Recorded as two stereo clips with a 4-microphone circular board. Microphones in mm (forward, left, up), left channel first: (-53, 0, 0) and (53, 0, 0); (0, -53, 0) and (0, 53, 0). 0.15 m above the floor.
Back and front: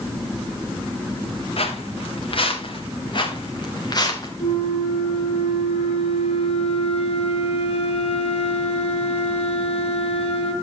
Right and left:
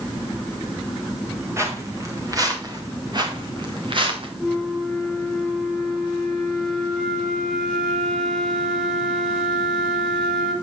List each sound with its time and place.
1.6 s footsteps: 155° left, 4 m; by 4.3 s 125° left, 3.5 m
4.4 s a flute: 175° right, 3.5 m